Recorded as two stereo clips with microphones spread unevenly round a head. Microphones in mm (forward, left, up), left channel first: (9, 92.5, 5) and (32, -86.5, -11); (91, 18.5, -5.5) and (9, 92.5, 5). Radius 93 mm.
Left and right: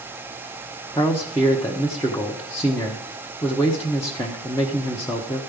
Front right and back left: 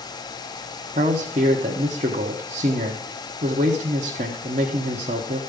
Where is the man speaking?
170° left, 1.1 m.